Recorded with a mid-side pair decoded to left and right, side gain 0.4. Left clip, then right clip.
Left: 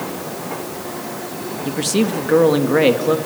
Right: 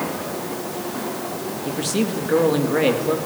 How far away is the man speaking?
About 2 m.